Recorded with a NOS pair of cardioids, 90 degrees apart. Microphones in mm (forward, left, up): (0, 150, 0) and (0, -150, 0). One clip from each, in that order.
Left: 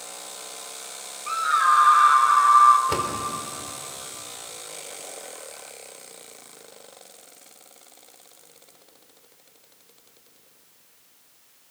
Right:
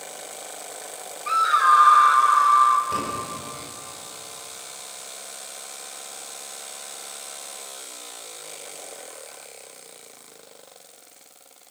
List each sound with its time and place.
1.3 s a scream: 25° right, 1.7 m; by 2.8 s 10° left, 2 m
2.9 s a door slam: 60° left, 4 m